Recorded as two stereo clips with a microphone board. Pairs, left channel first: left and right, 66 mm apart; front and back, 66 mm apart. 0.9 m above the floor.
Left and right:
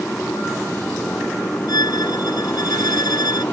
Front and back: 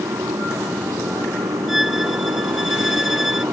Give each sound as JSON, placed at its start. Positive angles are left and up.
{"t": 0.0, "sound": "a motorcycle", "azimuth_deg": 165}
{"t": 1.7, "sound": "a violin", "azimuth_deg": 95}